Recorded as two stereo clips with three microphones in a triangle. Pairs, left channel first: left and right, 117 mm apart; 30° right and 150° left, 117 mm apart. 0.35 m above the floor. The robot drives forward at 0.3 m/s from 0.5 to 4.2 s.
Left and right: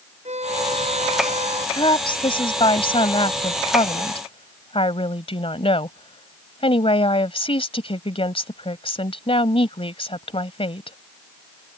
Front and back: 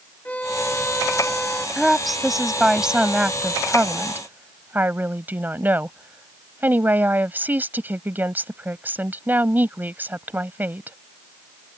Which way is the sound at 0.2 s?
110° right.